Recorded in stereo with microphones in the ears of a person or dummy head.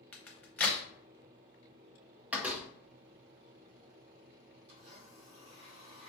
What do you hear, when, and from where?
0.1 s a crack: 10° left (ahead or behind), 0.8 m
2.3 s a door slam: 10° right (ahead or behind), 0.6 m
4.7 s a blender: 65° right (ahead or behind), 1.3 m